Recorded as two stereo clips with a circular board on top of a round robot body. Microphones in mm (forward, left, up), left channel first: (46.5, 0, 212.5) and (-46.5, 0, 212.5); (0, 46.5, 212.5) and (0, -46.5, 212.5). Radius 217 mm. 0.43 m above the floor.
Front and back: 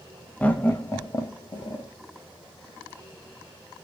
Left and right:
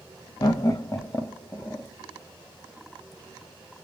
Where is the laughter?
70° left, 1.0 m; by 1.9 s 20° left, 1.3 m.